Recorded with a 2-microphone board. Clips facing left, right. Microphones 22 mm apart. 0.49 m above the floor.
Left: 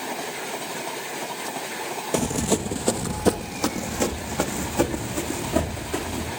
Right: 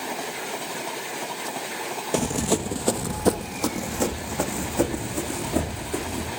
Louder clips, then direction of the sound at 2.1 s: Even; 5° right (ahead or behind).